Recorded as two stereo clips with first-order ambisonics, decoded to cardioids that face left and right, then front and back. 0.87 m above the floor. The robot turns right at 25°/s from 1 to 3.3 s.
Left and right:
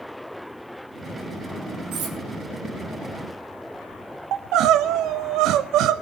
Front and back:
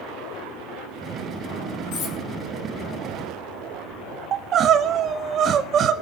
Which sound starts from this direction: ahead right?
Cutlery clinking, at 1.9 s.